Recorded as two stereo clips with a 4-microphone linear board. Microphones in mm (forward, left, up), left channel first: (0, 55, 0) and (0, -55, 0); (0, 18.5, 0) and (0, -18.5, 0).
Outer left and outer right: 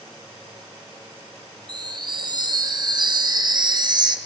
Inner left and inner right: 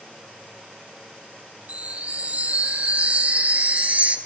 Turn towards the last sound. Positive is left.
turn(degrees=-40)  # may be behind; listen again after turning